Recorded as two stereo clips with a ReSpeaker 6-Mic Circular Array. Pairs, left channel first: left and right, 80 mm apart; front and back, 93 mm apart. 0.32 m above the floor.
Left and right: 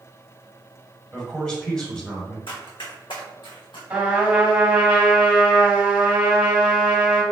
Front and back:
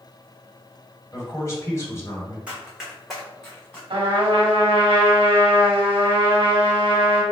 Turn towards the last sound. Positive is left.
turn(degrees=-165)